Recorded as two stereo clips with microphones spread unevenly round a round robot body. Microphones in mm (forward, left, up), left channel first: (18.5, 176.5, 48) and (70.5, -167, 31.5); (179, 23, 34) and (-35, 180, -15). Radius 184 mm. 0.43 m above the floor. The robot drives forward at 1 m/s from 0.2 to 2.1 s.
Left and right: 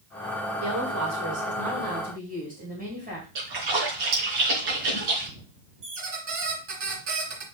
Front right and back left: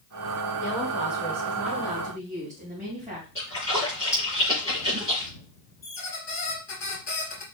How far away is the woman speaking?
About 1.8 m.